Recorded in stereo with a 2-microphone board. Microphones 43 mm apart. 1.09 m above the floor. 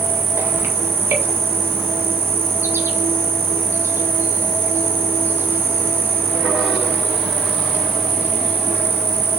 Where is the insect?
60° right (ahead or behind), 1.9 m.